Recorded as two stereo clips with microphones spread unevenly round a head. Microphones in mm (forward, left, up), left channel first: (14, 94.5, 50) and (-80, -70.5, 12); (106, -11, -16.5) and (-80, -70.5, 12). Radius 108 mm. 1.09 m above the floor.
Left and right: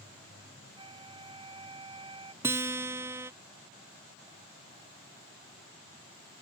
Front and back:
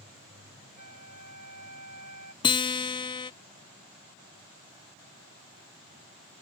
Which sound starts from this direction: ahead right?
A guitar, at 2.4 s.